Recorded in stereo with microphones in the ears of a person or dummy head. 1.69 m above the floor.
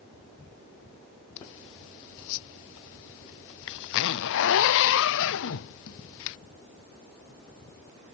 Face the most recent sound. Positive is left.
turn(degrees=70)  # may be behind; listen again after turning